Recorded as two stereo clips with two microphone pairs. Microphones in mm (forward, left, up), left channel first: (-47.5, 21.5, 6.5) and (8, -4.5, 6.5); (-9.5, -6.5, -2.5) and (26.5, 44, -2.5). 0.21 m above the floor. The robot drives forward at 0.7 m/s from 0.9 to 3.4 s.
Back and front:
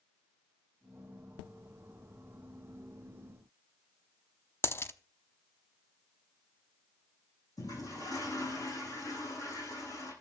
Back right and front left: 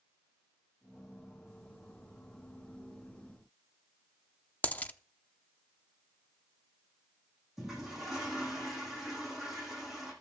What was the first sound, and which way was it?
A dropped coin, straight behind.